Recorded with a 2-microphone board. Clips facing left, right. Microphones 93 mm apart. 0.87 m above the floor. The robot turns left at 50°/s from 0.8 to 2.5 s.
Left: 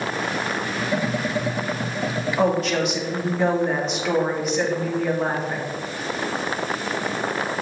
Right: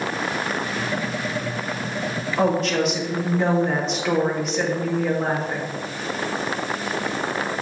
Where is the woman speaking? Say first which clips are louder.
Right 1 dB; 5° right (ahead or behind), 1.4 m; by 5.7 s centre (ahead or behind), 1.4 m.